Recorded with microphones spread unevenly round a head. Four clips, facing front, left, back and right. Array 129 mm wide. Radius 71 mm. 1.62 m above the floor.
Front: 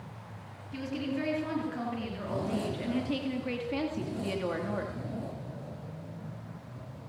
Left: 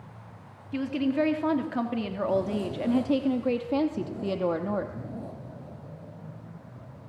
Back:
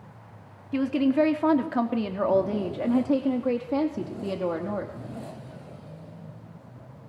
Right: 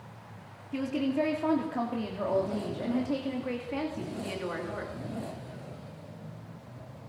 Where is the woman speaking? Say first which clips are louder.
Left 2 dB, back 12 dB; 175° left, 3.5 m; by 4.9 s 110° left, 2.5 m.